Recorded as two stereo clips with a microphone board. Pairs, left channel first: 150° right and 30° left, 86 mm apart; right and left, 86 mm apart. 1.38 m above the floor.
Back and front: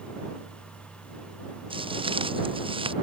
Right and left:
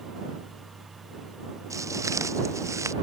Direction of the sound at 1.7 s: 40° left.